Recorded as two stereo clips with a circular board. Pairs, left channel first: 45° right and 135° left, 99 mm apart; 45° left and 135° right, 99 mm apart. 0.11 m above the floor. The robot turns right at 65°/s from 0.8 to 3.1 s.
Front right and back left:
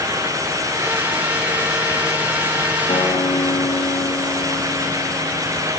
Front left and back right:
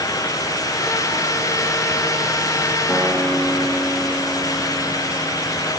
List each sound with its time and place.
2.9 s a guitar: 40° right, 6 m; by 5.7 s 30° right, 6 m